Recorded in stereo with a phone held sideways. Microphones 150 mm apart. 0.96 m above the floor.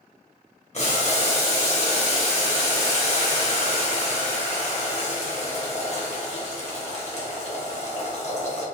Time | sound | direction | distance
0.7 | boiling | 50° left (ahead or behind) | 1.1 m